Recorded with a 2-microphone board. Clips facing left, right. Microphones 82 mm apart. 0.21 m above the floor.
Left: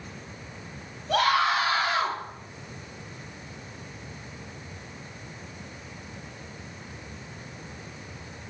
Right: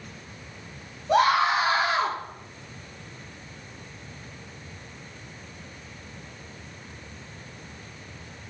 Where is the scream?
25° right (ahead or behind), 4.5 m; by 2.2 s 20° right (ahead or behind), 3.5 m.